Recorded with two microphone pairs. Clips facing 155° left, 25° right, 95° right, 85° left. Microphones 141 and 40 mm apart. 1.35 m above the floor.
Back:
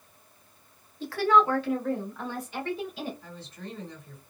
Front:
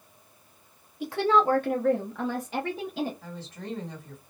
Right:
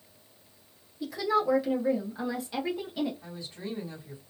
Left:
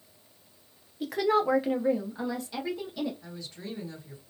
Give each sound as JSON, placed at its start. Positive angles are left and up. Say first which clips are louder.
{"t": 1.0, "sound": "a woman speaking", "louder": "even, left 2 dB", "azimuth_deg": 55, "distance_m": 0.7}
{"t": 3.2, "sound": "a woman speaking", "louder": "front 3 dB, right 2 dB", "azimuth_deg": -30, "distance_m": 1.5}